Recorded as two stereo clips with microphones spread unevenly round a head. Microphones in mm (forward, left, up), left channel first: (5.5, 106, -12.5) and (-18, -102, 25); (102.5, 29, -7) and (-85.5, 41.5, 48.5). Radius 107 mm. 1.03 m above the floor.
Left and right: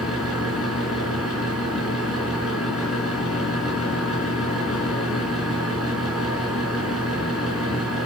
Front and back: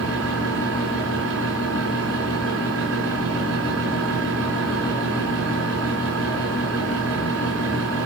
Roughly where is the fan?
Behind.